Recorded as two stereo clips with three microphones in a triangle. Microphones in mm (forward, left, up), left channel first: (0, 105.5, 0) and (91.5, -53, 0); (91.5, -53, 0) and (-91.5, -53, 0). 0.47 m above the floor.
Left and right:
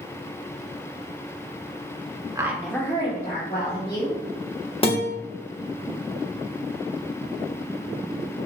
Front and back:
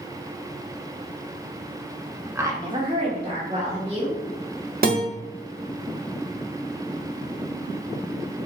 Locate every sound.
2.4 s a woman speaking: 115° right, 1.0 m; by 4.2 s 125° left, 2 m
4.8 s a guitar: 170° left, 0.9 m